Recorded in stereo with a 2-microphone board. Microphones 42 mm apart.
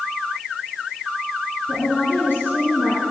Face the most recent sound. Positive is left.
turn(degrees=65)  # may be behind; listen again after turning